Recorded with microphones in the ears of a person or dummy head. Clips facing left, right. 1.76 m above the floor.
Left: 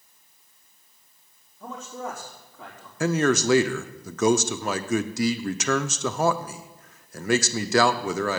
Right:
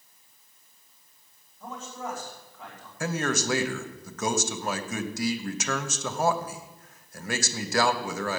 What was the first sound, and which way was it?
A man speaking, 80° left.